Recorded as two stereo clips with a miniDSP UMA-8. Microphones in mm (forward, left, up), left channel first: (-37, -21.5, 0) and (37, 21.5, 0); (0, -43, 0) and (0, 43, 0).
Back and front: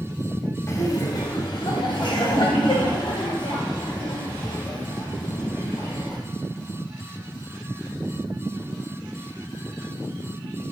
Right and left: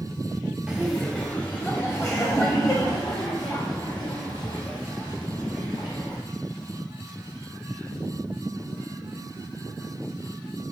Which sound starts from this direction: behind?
Laughter, at 0.7 s.